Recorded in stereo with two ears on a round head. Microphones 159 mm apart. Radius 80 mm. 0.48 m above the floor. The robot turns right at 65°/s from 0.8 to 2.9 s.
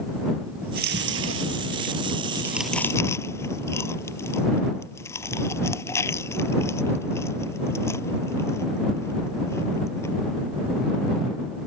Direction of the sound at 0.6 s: 60° right (ahead or behind).